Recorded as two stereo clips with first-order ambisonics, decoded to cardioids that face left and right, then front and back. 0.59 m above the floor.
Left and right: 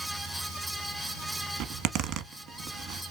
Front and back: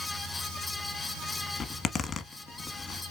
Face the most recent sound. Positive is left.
turn(degrees=-60)